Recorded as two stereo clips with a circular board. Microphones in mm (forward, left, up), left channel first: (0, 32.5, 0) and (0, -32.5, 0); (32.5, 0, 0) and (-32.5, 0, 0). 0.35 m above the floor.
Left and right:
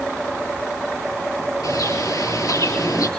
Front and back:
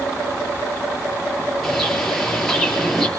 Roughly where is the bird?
Left.